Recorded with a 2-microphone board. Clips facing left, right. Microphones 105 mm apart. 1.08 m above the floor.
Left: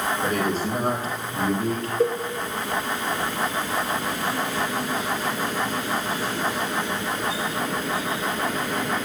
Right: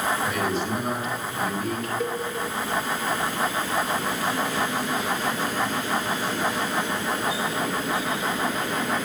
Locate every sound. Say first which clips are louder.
0.2 s a man speaking: left 2 dB; 55° left (ahead or behind), 4 m; by 1.9 s 35° left (ahead or behind), 3.5 m
2.0 s a cowbell: left 9 dB; 35° left (ahead or behind), 1.0 m